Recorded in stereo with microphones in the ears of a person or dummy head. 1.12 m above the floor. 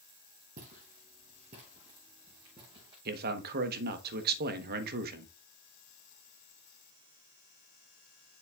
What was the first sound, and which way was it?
Footsteps, 45° right (ahead or behind).